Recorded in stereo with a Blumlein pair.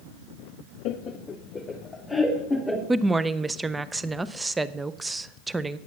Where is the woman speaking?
10° right, 0.5 m.